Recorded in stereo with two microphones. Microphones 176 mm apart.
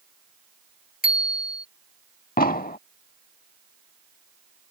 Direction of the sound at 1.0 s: 50° left (ahead or behind).